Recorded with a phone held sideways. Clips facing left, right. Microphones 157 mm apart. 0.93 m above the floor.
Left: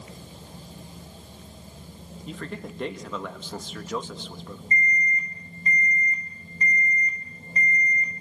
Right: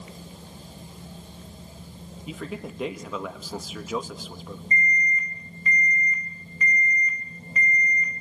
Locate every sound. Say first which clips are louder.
2.3 s a man speaking: right 1 dB; 5° right (ahead or behind), 1.4 m
4.7 s an alarm: even; 35° left (ahead or behind), 6.5 m